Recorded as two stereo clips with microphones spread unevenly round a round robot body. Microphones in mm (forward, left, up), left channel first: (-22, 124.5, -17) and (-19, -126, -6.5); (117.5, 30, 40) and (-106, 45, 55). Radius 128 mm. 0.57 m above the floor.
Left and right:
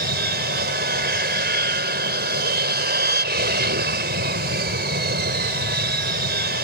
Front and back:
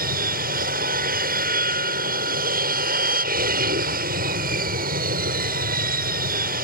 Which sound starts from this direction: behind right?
An aircraft, at 0.0 s.